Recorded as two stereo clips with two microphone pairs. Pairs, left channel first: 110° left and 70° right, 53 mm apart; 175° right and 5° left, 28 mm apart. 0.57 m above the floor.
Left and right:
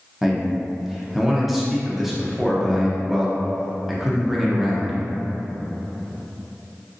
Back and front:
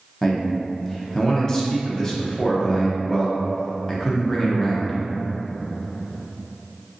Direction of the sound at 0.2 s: 155° right.